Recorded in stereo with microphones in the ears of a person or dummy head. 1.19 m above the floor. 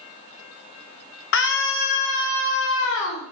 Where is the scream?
70° left (ahead or behind), 2.5 m; by 3.2 s 75° left (ahead or behind), 5 m.